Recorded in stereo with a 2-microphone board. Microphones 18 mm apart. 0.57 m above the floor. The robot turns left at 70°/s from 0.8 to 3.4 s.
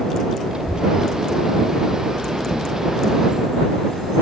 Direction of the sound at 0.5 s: 50° right (ahead or behind).